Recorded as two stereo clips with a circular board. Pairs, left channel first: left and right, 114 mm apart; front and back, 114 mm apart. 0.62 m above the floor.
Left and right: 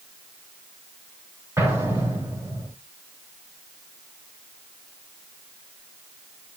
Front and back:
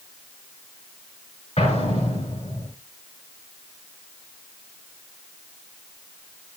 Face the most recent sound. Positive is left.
turn(degrees=-20)